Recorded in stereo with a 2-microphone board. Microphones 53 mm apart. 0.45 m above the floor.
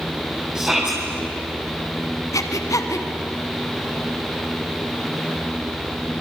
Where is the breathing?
80° left, 1.6 m.